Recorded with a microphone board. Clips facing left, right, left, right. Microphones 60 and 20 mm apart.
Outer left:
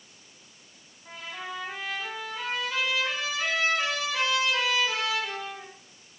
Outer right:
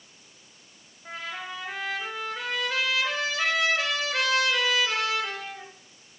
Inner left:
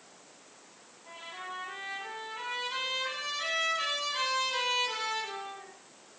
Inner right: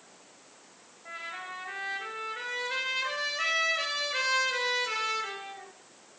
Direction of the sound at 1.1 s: 65° right (ahead or behind).